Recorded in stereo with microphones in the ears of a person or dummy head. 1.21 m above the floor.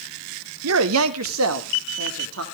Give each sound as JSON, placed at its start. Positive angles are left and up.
{"t": 0.6, "sound": "a man speaking", "side_deg": -80, "distance_m": 0.7}